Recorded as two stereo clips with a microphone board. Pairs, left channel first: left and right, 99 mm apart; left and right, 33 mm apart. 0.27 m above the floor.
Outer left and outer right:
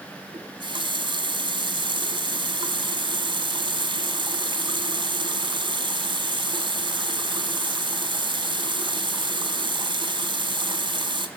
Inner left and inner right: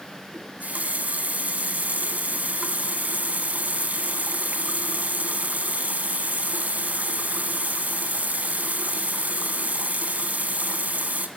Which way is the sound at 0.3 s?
65° right (ahead or behind).